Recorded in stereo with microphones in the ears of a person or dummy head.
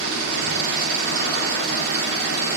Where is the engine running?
60° right (ahead or behind), 2.5 m.